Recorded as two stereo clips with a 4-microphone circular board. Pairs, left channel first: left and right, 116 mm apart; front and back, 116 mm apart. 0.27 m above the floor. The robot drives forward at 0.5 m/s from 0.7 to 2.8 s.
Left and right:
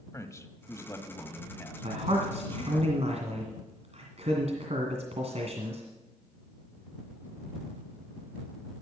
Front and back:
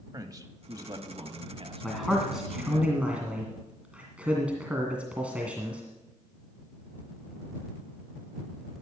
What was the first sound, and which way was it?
A man speaking, 140° left.